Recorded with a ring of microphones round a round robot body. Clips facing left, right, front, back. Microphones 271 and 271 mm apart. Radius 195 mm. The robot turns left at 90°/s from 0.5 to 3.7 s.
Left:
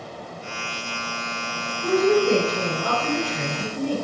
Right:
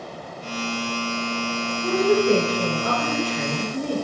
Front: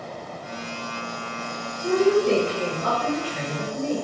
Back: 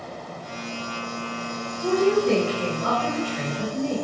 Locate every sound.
1.8 s a woman speaking: 90° left, 2.0 m; by 4.0 s 80° right, 2.0 m